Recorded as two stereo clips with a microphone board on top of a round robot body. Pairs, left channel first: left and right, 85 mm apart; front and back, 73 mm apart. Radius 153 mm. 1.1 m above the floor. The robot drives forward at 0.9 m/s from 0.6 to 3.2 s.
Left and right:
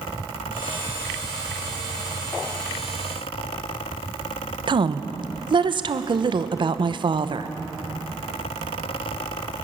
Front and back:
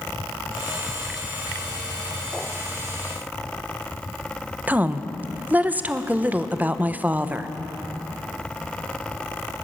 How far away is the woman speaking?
About 1.1 m.